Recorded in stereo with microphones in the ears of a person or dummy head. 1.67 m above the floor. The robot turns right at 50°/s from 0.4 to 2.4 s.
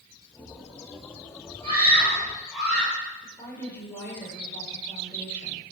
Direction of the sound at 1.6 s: 40° right.